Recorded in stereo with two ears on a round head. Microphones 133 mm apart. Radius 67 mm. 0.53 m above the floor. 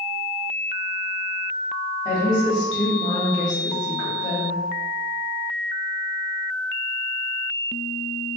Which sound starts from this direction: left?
A woman speaking, at 2.0 s.